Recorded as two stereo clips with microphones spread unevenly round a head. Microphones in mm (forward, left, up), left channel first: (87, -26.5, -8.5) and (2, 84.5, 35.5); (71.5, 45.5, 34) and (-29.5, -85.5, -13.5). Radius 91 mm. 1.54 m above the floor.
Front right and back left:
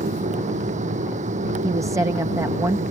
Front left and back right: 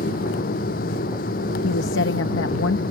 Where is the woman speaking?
60° left.